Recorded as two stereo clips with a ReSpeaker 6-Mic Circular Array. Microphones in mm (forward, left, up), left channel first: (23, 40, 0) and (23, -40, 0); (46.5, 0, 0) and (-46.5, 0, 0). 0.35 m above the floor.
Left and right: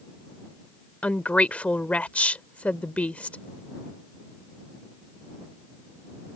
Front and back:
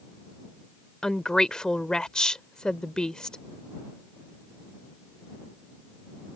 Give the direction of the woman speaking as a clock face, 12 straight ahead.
10 o'clock.